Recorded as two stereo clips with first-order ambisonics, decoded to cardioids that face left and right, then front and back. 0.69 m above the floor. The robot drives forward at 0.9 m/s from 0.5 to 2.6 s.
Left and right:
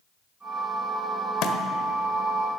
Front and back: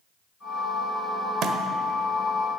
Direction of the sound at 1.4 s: 130° left.